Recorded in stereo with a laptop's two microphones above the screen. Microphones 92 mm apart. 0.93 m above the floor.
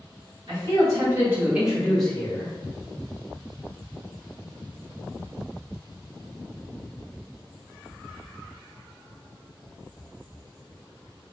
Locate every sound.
0.5 s a man speaking: 40° right (ahead or behind), 1.3 m; by 2.5 s 30° left (ahead or behind), 0.7 m